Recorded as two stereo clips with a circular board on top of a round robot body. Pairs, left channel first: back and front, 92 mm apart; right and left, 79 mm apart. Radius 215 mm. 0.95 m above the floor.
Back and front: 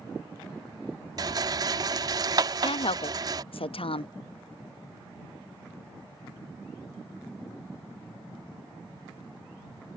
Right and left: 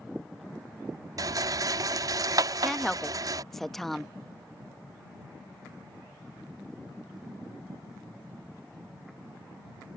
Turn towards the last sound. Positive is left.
turn(degrees=-175)